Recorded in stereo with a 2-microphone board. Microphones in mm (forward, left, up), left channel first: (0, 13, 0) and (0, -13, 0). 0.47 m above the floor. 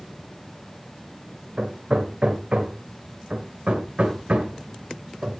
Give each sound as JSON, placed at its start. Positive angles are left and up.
{"t": 1.6, "sound": "hammering", "side_deg": -50, "distance_m": 2.0}